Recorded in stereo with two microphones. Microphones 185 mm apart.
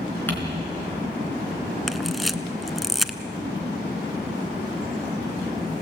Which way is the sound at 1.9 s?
Centre (ahead or behind).